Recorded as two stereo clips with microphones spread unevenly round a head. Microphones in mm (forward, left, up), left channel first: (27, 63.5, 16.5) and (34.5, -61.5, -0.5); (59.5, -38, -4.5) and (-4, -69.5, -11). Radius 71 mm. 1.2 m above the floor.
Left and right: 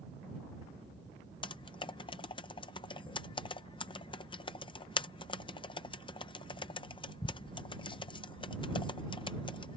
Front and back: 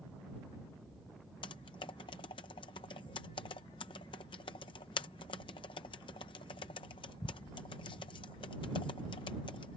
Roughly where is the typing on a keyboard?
Ahead left.